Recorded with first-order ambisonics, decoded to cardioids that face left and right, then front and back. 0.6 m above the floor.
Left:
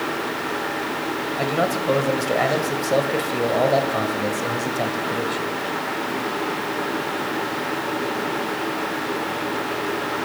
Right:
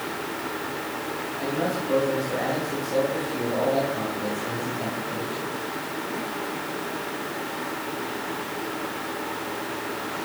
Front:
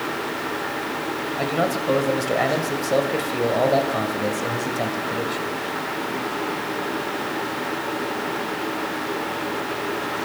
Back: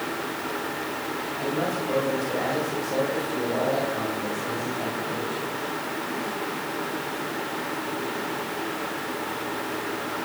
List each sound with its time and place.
1.4 s a man speaking: 50° left, 2 m